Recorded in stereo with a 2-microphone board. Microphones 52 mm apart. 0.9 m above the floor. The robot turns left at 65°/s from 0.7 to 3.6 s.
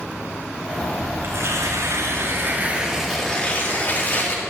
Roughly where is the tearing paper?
Ahead right.